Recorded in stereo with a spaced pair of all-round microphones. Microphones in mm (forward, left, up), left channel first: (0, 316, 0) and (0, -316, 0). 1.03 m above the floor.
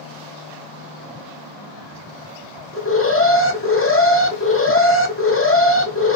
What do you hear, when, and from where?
2.7 s an alarm: 20° left (ahead or behind), 1.1 m